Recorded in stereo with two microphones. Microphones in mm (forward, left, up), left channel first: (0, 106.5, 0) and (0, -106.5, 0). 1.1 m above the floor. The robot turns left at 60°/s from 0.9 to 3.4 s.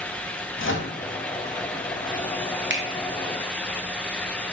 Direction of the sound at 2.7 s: 60° right (ahead or behind).